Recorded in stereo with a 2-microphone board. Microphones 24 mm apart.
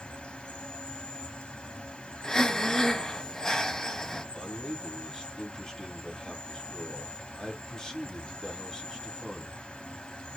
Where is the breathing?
20° left (ahead or behind), 0.7 m.